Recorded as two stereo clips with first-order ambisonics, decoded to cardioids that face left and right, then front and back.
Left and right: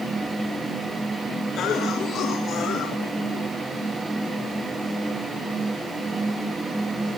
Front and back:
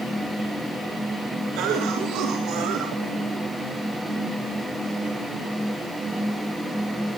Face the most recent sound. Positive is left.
turn(degrees=145)